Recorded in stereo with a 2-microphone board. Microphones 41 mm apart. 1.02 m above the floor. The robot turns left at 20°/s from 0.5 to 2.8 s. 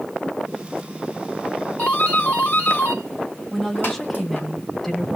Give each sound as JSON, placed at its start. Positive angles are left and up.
{"t": 1.8, "sound": "a doorbell", "side_deg": 30, "distance_m": 3.0}
{"t": 3.5, "sound": "a woman speaking", "side_deg": 0, "distance_m": 1.1}